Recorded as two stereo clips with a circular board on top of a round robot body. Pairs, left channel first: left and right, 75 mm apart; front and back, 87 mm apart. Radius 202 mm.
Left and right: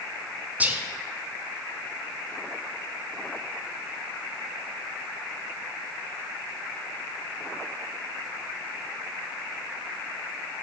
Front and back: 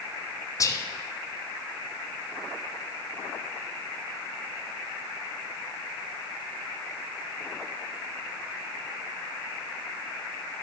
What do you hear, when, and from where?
0.6 s whispering: 30° right, 0.5 m